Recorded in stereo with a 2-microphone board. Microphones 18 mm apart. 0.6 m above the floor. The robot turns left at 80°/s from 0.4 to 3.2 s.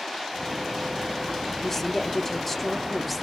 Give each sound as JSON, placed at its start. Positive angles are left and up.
{"t": 1.6, "sound": "a woman speaking", "side_deg": 15, "distance_m": 0.6}